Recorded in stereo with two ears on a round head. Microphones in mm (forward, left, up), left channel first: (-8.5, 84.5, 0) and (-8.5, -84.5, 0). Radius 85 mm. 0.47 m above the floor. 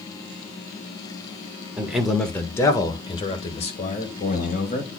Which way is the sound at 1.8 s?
10° right (ahead or behind).